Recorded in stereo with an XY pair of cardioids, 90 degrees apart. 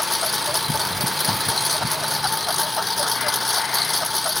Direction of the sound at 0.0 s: 15° left.